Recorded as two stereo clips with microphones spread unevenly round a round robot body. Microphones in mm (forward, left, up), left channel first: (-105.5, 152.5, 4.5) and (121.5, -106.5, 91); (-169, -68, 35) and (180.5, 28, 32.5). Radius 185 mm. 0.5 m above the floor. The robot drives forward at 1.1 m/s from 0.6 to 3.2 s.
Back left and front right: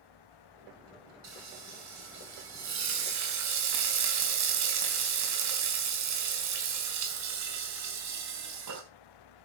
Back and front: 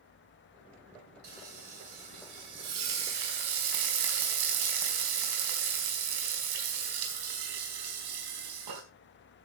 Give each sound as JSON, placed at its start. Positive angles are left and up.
{"t": 1.2, "sound": "frying", "azimuth_deg": 0, "distance_m": 6.5}